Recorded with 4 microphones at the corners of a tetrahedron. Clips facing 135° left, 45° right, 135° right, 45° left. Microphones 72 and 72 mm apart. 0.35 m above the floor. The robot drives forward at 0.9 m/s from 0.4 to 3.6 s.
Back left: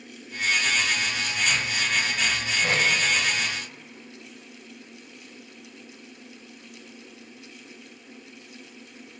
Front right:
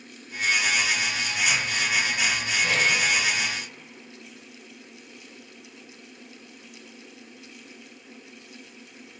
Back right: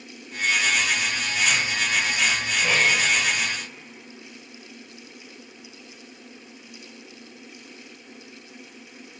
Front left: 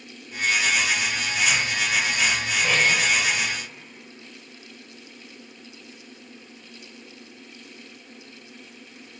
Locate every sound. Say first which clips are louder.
2.6 s tape being pulled: even, even; 130° left, 1.0 m; by 2.9 s 145° left, 1.1 m